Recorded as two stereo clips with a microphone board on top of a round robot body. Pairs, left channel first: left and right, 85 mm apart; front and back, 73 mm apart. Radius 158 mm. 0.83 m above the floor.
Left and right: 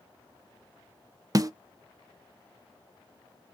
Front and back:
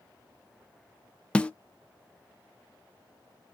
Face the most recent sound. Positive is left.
turn(degrees=-70)